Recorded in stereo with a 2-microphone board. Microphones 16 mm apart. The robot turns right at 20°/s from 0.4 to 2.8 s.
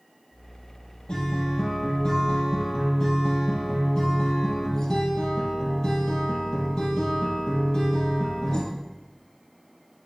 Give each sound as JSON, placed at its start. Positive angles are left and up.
{"t": 1.1, "sound": "a guitar", "azimuth_deg": 105, "distance_m": 4.5}